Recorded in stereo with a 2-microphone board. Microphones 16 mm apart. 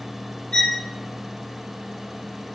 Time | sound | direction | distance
0.5 | a violin | 85° left | 5 m